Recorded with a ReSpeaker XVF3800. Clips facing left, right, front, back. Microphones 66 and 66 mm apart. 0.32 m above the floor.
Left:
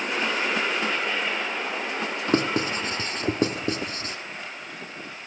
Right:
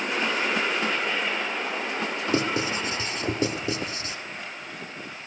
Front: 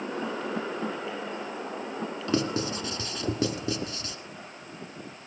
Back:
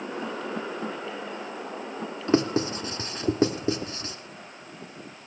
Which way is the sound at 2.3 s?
125° left.